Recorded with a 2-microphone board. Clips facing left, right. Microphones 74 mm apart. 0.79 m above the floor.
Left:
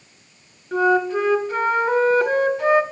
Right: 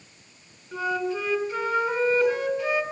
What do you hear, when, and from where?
0.7 s a flute: 60° left (ahead or behind), 1.2 m